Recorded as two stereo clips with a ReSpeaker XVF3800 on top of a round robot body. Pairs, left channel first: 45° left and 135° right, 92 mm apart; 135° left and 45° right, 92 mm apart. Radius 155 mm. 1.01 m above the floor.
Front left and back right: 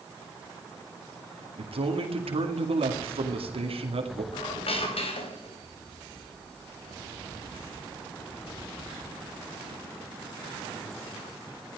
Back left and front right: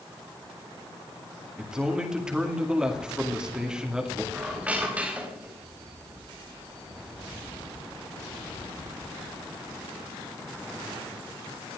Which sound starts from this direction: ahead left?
A squeak, at 4.3 s.